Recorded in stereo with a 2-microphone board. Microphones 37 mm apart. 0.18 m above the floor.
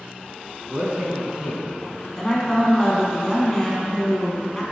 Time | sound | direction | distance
0.7 | a man speaking | 45° right (ahead or behind) | 1.8 m
2.2 | a woman speaking | 10° left (ahead or behind) | 1.4 m